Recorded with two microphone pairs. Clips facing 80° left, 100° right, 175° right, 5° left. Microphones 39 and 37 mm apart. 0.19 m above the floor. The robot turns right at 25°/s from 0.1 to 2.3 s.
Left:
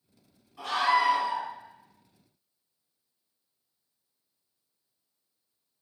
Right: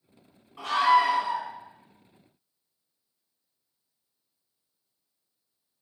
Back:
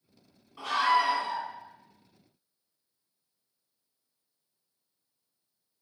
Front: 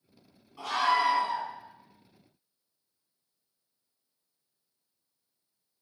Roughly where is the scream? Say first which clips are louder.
Right 4 dB, back 1 dB; right.